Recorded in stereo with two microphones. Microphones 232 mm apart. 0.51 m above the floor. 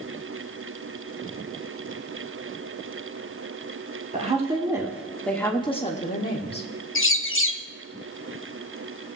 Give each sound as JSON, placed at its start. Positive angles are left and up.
{"t": 4.1, "sound": "a woman speaking", "side_deg": -30, "distance_m": 1.5}
{"t": 7.0, "sound": "a bird", "side_deg": 60, "distance_m": 0.5}